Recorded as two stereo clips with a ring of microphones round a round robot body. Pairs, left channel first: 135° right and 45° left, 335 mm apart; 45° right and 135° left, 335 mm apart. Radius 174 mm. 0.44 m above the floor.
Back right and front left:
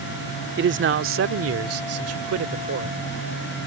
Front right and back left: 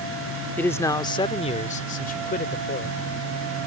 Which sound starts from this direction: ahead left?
A man speaking, at 0.6 s.